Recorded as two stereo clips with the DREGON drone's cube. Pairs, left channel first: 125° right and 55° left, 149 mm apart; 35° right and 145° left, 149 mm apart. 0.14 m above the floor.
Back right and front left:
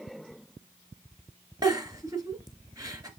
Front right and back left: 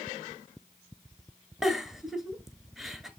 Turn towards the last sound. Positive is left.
turn(degrees=60)